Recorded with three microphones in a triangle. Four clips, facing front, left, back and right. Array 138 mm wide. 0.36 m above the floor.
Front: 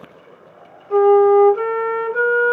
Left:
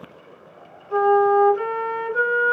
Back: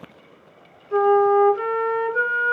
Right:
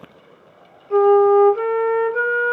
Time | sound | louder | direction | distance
0.9 | a flute | right 4 dB, front 5 dB | 20° right | 1.2 m